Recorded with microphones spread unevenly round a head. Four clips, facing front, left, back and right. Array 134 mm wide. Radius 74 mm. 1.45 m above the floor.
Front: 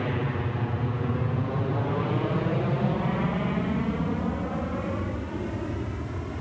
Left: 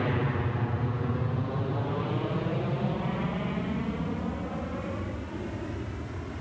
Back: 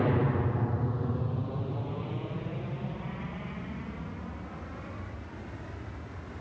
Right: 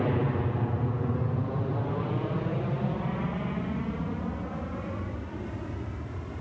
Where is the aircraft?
135° right; by 6.4 s 15° left.